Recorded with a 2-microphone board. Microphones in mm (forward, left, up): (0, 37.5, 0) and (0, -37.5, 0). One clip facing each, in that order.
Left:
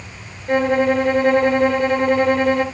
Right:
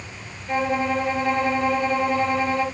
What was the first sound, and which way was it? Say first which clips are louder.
A violin: left 6 dB; 55° left (ahead or behind).